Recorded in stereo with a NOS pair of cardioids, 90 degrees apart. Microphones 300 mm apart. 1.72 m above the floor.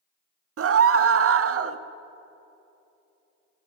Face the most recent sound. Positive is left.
turn(degrees=-45)